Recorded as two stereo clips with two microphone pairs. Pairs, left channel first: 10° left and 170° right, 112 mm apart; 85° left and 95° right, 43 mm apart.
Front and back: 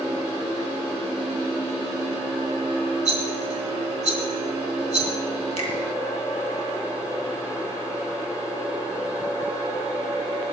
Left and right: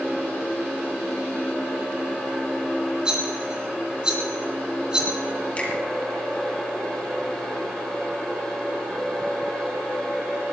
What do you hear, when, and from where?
3.0 s a rattle: 160° right, 3.5 m
5.6 s a finger snap: 30° left, 3 m